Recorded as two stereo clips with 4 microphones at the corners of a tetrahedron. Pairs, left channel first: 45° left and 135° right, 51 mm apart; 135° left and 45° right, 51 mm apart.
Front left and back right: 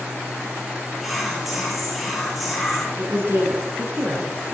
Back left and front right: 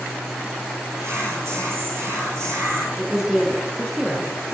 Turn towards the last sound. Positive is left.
turn(degrees=-120)